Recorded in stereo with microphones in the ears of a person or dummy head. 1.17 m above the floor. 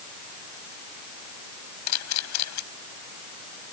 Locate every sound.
1.9 s a camera shutter: 85° left